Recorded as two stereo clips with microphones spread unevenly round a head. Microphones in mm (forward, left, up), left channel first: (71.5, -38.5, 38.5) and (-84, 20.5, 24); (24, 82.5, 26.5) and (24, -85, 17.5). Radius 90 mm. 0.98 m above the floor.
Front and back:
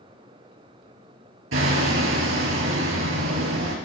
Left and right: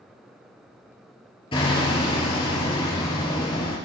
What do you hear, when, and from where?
1.5 s hammering: 155° left, 5 m